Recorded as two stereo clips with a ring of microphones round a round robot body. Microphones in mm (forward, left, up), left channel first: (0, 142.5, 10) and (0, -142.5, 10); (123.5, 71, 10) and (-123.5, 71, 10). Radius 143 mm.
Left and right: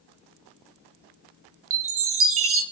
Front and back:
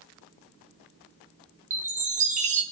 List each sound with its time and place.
1.7 s a chime: 120° right, 1.1 m